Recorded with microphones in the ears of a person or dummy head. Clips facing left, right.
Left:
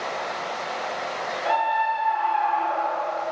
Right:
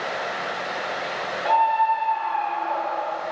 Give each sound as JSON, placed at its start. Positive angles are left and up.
{"t": 1.4, "sound": "a scream", "side_deg": 5, "distance_m": 0.8}